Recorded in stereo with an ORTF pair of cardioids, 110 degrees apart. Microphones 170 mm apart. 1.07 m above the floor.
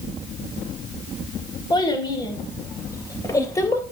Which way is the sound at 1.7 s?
25° left.